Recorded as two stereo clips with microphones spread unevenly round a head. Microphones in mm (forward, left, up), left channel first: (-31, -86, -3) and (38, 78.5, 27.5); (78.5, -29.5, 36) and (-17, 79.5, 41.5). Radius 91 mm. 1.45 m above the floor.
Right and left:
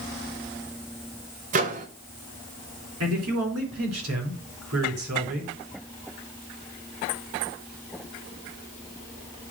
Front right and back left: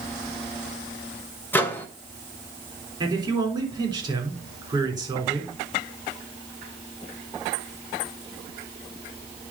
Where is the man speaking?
70° left, 4 m.